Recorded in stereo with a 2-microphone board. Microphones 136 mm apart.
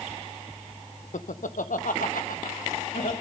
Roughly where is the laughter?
Left.